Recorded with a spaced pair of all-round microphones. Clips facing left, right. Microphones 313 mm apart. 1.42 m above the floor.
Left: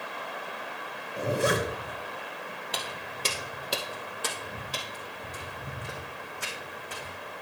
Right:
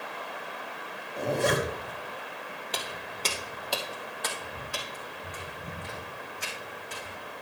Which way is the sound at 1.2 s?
10° left (ahead or behind).